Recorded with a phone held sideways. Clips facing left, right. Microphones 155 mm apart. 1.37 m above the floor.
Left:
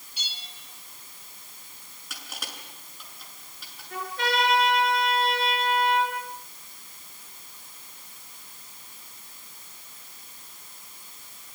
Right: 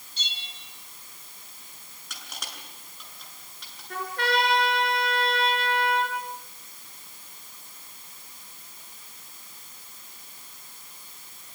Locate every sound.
0.2 s a bell: 10° left (ahead or behind), 4 m
2.1 s crushing: 5° left (ahead or behind), 7.5 m
3.9 s a trumpet: 65° right (ahead or behind), 7.5 m